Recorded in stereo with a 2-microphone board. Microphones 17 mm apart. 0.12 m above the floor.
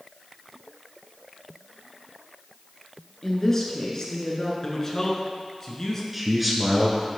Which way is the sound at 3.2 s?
20° left (ahead or behind).